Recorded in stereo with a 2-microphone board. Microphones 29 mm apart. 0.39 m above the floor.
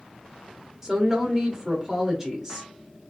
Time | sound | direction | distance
0.8 | a woman speaking | 10° right (ahead or behind) | 0.8 m